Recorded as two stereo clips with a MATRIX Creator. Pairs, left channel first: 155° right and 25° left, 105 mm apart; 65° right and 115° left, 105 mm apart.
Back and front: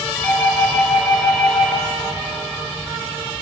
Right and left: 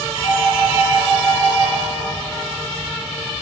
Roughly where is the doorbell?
Right.